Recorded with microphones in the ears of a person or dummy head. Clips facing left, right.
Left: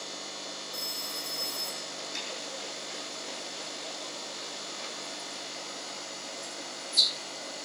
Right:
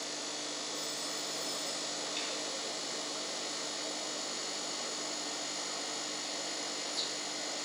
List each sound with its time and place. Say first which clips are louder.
0.7 s a phone ringing: even; 85° left, 5 m
2.1 s a snare drum: even; 75° left (ahead or behind), 8.5 m